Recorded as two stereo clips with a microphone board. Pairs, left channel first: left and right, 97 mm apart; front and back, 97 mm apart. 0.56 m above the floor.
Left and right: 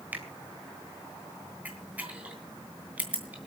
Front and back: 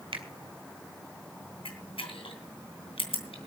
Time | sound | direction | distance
0.1 | a finger snap | 160° right | 2.5 m
1.6 | a camera shutter | 15° right | 3 m